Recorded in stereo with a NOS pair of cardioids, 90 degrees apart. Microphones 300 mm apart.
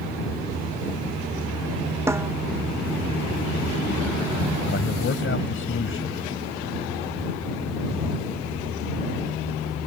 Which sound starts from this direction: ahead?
A snare drum, at 2.1 s.